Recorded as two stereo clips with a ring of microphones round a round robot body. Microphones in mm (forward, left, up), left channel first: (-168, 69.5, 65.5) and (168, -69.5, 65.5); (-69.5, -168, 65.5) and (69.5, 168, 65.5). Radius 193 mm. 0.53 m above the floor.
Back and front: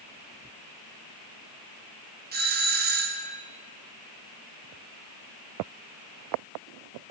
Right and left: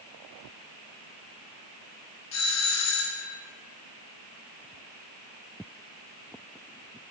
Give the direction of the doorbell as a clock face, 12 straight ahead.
3 o'clock.